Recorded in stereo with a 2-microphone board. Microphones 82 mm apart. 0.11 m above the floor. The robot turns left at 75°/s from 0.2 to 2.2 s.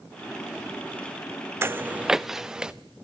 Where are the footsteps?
30° right (ahead or behind), 0.5 m; by 2.7 s 10° right (ahead or behind), 1.1 m.